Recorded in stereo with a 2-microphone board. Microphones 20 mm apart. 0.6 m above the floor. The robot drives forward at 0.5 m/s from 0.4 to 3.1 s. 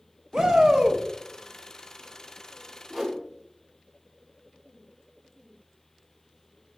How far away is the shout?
About 0.7 m.